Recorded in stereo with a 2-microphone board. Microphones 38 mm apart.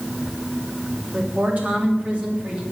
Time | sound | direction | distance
1.1 | a woman speaking | 45° right (ahead or behind) | 3.5 m